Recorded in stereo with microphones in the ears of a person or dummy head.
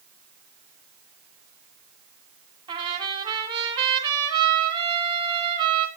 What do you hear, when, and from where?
2.7 s a trumpet: 25° right (ahead or behind), 3 m